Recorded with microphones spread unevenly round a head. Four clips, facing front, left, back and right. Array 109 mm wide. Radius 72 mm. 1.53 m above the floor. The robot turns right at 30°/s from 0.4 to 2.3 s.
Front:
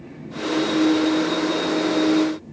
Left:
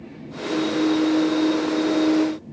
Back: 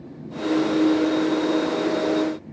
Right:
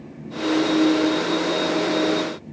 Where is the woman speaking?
No woman speaking in this recording.